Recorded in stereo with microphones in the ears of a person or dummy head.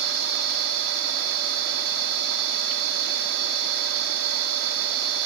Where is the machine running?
60° right (ahead or behind), 1.7 m.